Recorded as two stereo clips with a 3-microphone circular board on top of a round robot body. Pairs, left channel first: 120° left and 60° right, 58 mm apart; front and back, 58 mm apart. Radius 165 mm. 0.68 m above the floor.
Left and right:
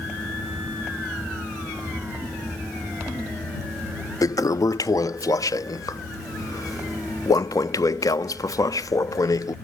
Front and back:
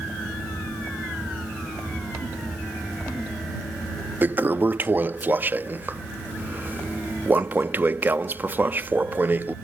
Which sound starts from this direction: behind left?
A toilet flushing, at 4.2 s.